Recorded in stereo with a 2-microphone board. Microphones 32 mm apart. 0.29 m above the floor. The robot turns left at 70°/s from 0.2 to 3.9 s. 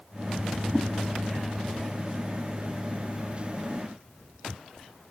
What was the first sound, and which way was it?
A whoosh, 5° right (ahead or behind).